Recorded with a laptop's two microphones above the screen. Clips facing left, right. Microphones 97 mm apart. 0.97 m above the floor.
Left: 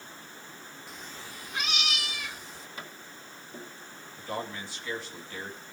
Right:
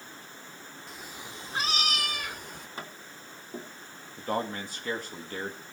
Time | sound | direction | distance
0.9 | a cat meowing | centre (ahead or behind) | 0.6 m
2.8 | tapping | 35° right (ahead or behind) | 3 m
4.2 | a man speaking | 50° right (ahead or behind) | 1.9 m